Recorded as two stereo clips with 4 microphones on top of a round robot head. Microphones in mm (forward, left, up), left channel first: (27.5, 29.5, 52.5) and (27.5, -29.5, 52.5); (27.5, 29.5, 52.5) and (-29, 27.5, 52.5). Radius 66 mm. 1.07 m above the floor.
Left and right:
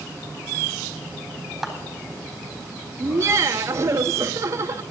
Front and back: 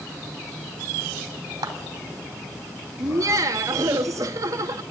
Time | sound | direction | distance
1.6 | a clap | 175° right | 4 m
3.0 | laughter | 140° right | 1.8 m